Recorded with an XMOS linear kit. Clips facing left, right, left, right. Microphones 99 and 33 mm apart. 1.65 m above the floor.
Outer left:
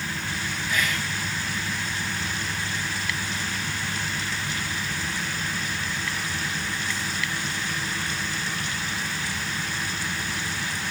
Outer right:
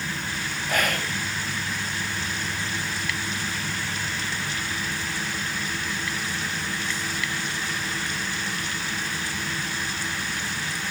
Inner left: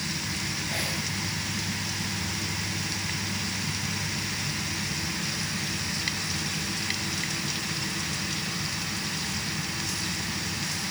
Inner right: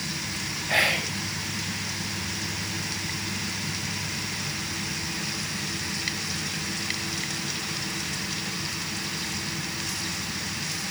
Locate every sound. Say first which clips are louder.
0.7 s whispering: outer right 3 dB, inner right 12 dB; 55° right (ahead or behind)